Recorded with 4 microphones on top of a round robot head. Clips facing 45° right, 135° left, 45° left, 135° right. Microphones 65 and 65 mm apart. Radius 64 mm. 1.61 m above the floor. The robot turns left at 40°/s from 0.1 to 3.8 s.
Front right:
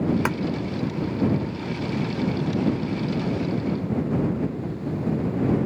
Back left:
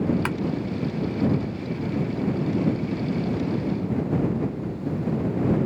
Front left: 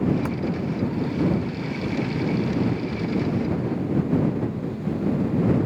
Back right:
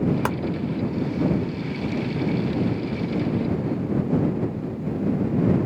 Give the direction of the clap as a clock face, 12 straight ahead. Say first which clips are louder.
Front right 2 dB, back right 3 dB; 4 o'clock.